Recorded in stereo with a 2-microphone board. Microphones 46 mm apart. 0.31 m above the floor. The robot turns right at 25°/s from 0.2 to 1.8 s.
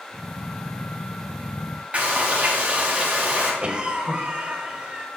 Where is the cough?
20° right (ahead or behind), 1.2 m.